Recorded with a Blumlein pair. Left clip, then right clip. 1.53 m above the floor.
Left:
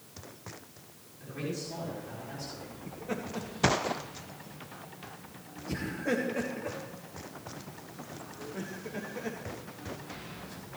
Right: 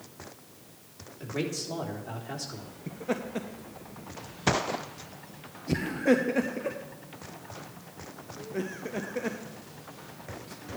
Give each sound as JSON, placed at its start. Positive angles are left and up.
{"t": 1.2, "sound": "a man speaking", "azimuth_deg": -30, "distance_m": 3.5}
{"t": 2.9, "sound": "laughter", "azimuth_deg": -20, "distance_m": 0.8}